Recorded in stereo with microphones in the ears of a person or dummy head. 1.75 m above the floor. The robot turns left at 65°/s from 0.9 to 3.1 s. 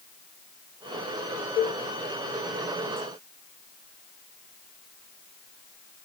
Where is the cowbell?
35° left (ahead or behind), 1.6 m; by 1.8 s 25° left (ahead or behind), 1.6 m.